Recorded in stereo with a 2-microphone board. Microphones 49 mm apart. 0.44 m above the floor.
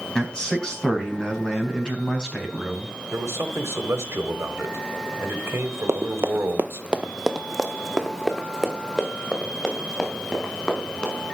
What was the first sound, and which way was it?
A man speaking, 20° left (ahead or behind).